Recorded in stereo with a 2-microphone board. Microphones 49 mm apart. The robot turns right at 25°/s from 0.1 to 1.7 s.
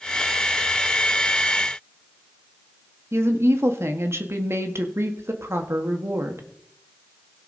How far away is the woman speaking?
About 1.4 m.